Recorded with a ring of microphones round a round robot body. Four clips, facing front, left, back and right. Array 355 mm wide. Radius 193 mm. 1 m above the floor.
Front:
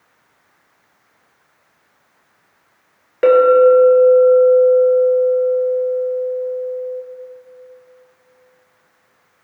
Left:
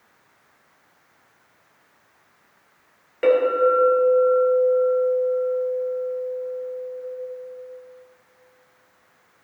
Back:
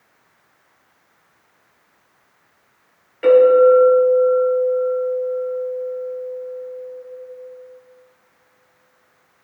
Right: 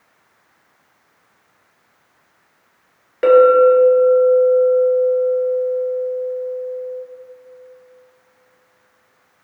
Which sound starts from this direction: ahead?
A clink, at 3.2 s.